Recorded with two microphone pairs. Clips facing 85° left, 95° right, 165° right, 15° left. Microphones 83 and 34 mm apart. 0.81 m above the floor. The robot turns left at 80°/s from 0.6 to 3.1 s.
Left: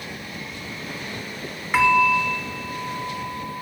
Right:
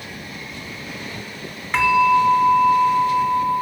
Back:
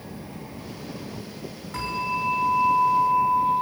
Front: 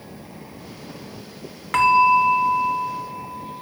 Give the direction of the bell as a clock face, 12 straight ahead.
12 o'clock.